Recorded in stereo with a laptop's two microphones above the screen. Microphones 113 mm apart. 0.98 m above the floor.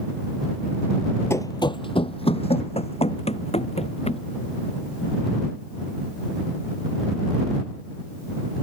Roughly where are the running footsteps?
Left.